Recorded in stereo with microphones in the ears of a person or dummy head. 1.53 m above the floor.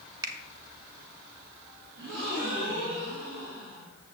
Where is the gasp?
70° right (ahead or behind), 2.5 m.